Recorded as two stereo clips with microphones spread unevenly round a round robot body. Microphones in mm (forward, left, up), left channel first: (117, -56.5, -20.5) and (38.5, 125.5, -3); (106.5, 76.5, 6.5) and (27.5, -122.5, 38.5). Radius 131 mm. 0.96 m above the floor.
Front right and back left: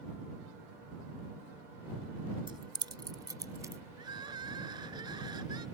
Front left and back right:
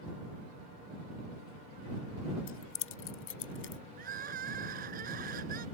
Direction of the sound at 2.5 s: 45° left.